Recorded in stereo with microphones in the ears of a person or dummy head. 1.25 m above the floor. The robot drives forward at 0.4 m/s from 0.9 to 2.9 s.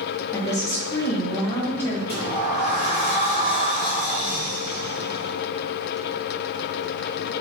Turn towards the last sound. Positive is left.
turn(degrees=-15)  # may be behind; listen again after turning